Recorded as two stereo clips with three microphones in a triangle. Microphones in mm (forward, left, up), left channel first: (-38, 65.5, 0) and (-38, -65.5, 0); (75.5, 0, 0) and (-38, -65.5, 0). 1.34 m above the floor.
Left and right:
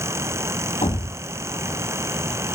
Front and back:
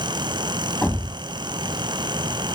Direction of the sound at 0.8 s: 110° left.